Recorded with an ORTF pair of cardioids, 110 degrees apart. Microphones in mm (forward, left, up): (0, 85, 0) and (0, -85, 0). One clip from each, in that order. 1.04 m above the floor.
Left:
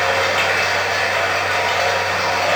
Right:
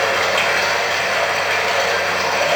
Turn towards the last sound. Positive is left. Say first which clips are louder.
# even
turn(degrees=-45)